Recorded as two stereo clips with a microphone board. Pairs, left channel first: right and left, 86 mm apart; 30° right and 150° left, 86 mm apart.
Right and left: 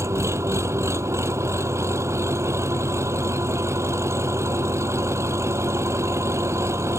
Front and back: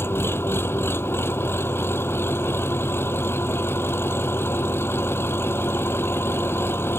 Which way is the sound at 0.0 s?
35° left.